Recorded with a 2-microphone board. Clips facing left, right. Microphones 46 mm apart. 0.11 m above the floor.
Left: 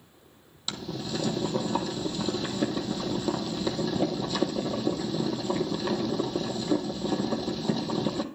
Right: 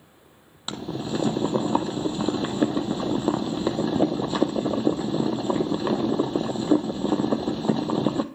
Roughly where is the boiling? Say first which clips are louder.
Right 4 dB; right.